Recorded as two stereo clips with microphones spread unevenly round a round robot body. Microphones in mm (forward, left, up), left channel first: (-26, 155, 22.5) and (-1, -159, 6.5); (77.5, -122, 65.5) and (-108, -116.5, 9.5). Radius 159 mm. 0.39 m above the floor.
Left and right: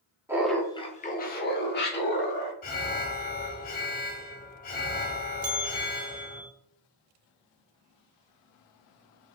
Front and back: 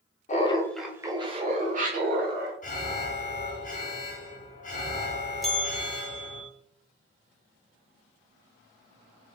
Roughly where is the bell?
Right.